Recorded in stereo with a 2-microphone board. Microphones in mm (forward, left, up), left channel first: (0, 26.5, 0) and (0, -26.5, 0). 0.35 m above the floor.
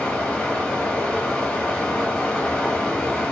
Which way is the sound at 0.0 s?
15° left (ahead or behind).